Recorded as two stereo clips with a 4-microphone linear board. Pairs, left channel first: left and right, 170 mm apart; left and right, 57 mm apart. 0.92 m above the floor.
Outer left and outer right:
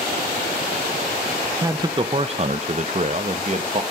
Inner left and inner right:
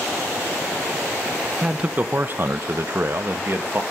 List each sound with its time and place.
1.6 s a man speaking: 20° right (ahead or behind), 0.6 m; by 3.8 s 45° right (ahead or behind), 1.1 m